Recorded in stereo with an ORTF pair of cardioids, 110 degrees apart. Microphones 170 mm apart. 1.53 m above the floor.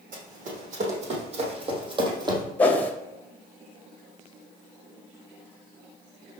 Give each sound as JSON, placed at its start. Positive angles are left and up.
{"t": 0.1, "sound": "running footsteps", "azimuth_deg": -55, "distance_m": 5.0}
{"t": 2.6, "sound": "a whoosh", "azimuth_deg": 10, "distance_m": 1.8}